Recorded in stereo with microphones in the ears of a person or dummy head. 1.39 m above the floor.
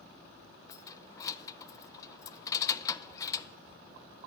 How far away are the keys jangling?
About 0.5 m.